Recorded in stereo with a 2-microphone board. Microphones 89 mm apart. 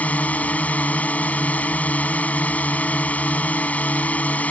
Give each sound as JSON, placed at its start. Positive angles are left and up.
{"t": 0.0, "sound": "a drone", "side_deg": 15}